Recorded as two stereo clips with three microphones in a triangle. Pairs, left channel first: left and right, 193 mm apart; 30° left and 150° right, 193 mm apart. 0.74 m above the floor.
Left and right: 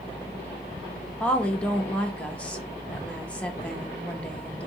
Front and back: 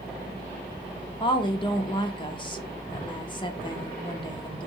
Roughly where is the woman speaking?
Ahead.